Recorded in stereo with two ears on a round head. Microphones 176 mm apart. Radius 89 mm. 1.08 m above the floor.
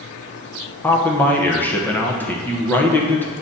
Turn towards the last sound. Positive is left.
turn(degrees=10)  # may be behind; listen again after turning